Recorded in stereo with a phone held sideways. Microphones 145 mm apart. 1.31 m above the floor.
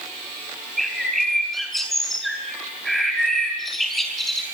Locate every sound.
0.8 s a bird: centre (ahead or behind), 6 m